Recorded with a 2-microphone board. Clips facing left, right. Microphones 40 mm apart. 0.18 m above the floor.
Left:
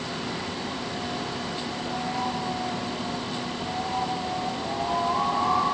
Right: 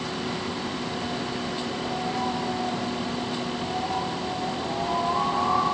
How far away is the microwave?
No microwave in this recording.